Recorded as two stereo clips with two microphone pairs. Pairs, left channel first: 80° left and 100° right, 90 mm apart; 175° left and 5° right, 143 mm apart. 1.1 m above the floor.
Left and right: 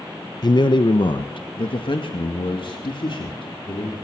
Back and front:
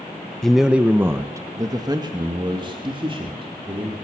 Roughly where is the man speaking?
Left.